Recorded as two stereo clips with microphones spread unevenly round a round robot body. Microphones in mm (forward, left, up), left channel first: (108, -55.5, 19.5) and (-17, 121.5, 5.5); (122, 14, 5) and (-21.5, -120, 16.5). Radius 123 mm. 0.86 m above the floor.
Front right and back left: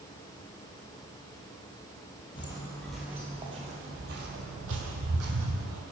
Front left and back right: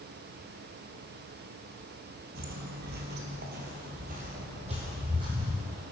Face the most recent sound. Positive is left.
turn(degrees=150)